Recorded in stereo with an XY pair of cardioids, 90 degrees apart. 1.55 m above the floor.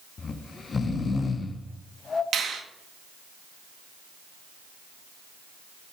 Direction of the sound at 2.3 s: 70° right.